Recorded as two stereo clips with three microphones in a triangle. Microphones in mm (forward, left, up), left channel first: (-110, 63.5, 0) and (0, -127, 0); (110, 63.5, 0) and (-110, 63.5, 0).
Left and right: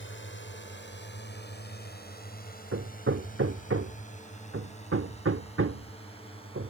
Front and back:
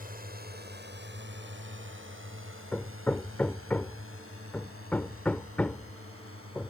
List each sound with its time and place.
0.0 s a drone: 135° left; by 6.7 s 175° right
2.7 s hammering: 85° right